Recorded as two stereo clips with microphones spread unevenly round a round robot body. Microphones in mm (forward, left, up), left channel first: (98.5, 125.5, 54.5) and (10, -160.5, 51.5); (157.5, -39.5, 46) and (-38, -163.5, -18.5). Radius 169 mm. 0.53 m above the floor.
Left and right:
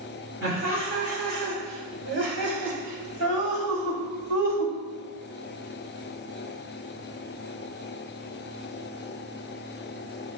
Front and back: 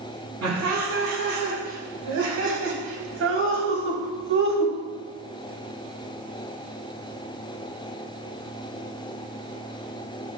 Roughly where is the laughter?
Behind.